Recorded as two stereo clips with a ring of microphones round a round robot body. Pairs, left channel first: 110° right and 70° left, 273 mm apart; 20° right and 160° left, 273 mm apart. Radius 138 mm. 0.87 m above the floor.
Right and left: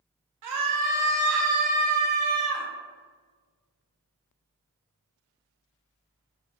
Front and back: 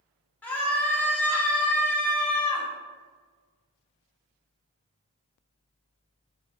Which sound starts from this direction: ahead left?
A scream, at 0.4 s.